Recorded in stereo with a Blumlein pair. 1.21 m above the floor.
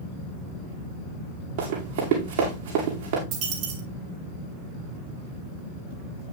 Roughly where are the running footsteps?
Ahead right.